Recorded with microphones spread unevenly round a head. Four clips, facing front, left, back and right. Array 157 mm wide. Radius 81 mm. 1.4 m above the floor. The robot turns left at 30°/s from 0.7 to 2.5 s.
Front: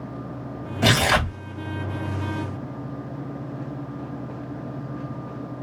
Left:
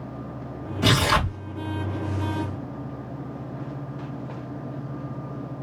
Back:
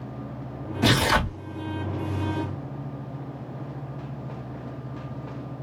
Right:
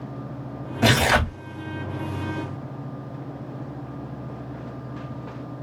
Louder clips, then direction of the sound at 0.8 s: Right 2 dB, front 1 dB; 35° right.